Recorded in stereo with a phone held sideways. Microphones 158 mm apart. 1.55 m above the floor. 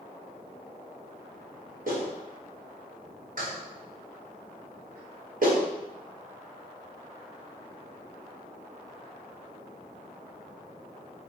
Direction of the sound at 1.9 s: 60° right (ahead or behind).